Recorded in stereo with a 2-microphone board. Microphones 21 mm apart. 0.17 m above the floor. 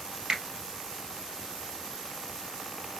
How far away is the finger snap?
About 2.5 m.